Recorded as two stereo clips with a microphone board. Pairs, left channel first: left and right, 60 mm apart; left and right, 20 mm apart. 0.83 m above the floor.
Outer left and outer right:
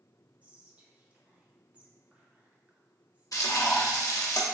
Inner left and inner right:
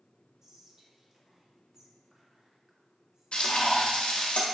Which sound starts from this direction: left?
Frying, at 3.3 s.